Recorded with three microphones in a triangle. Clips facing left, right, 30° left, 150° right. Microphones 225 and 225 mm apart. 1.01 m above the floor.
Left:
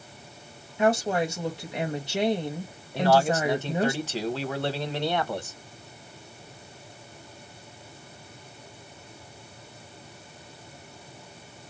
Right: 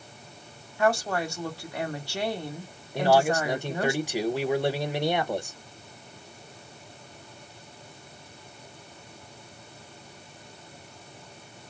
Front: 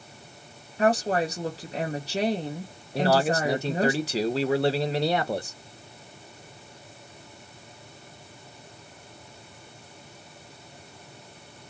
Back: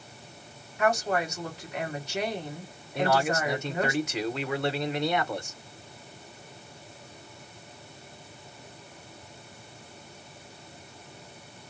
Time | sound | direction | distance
0.8 | a woman speaking | 40° left | 0.9 m
3.0 | a man speaking | 20° right | 0.6 m